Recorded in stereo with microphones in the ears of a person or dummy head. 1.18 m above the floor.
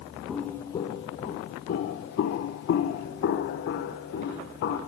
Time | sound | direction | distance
0.3 | footsteps | 5° left (ahead or behind) | 1.7 m